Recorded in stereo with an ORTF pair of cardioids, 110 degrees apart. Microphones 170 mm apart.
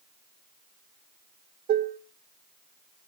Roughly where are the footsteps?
I don't hear footsteps.